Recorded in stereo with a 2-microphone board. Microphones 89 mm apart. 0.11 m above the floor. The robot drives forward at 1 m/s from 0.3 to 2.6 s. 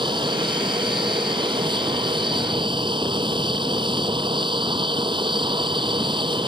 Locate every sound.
0.0 s an aircraft: 60° right (ahead or behind); by 6.5 s 65° right (ahead or behind)